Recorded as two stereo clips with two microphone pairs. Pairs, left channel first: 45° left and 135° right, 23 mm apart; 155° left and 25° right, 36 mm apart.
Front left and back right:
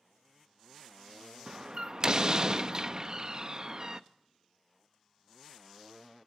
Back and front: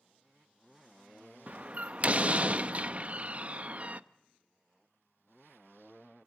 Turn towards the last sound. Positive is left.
turn(degrees=-75)